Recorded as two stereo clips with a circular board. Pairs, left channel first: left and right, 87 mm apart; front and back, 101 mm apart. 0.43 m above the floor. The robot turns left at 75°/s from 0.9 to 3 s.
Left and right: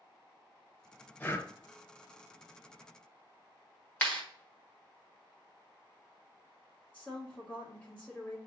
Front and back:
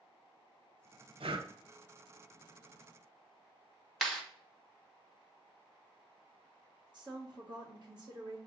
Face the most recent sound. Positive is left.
turn(degrees=160)